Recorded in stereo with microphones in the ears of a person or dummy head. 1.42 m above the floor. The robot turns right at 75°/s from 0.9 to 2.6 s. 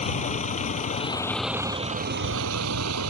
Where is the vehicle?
35° left (ahead or behind); by 3.1 s 85° right.